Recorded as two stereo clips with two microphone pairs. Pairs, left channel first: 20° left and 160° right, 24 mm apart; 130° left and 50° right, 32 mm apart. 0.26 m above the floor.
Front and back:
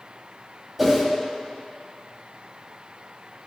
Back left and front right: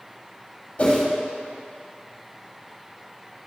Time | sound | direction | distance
0.8 | a whoosh | 130° left | 1.7 m